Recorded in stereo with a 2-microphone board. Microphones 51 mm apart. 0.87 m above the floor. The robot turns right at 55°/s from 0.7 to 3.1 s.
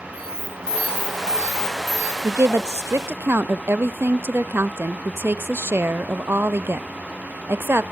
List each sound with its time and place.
0.1 s an alarm: 20° left, 7 m; by 2.1 s 100° left, 7 m
2.2 s a woman speaking: 100° right, 0.6 m; by 7.8 s 55° right, 0.6 m